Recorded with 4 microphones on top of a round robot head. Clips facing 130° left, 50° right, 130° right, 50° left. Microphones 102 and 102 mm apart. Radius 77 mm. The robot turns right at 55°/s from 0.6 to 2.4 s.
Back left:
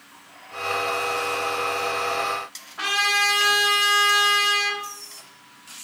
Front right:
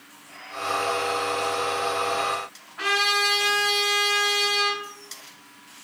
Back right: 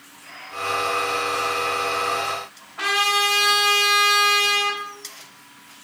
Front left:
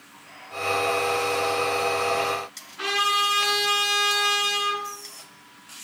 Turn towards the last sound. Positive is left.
turn(degrees=-170)